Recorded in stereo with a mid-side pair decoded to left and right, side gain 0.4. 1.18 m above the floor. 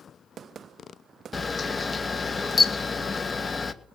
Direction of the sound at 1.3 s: 30° left.